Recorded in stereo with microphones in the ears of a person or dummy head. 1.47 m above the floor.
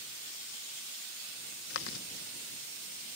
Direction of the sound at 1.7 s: 70° left (ahead or behind).